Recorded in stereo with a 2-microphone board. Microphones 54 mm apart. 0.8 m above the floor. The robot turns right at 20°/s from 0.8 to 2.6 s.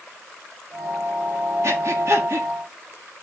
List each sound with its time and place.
1.6 s breathing: 60° right (ahead or behind), 1.4 m